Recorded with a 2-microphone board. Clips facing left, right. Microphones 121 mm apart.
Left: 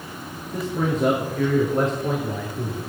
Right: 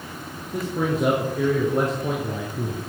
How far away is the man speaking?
About 4 m.